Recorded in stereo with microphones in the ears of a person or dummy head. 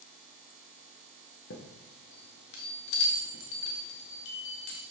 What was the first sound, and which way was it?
A chime, 70° left (ahead or behind).